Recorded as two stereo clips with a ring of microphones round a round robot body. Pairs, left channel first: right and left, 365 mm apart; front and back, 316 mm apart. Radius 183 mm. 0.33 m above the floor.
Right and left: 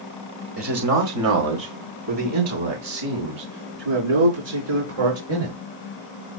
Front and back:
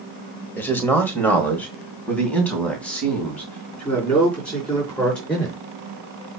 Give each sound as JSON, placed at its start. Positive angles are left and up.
{"t": 0.6, "sound": "a man speaking", "azimuth_deg": 80, "distance_m": 1.3}